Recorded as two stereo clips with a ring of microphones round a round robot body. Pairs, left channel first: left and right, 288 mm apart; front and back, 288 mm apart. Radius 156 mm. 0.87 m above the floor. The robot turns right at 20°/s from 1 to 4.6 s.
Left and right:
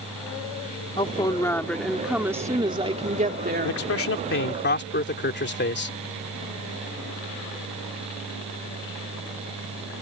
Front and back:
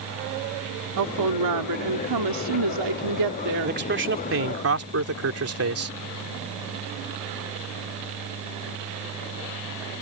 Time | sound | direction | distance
1.0 | a woman speaking | 160° left | ?
3.6 | a man speaking | 125° left | ?